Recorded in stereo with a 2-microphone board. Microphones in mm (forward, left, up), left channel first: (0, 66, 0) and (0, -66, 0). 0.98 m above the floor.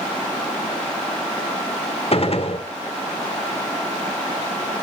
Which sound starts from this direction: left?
A gunshot, at 2.1 s.